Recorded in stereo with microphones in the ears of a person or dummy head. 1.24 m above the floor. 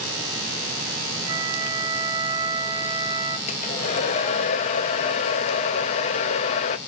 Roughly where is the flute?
Right.